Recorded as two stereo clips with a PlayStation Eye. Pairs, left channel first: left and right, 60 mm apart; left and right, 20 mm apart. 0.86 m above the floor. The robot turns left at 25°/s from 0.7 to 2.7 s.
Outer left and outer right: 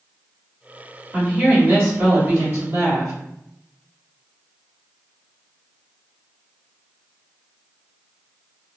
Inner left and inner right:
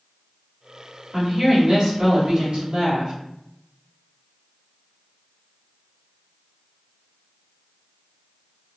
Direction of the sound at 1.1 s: 30° right.